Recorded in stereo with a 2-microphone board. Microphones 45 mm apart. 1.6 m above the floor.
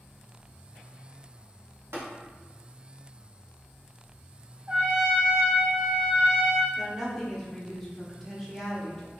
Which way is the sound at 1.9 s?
85° right.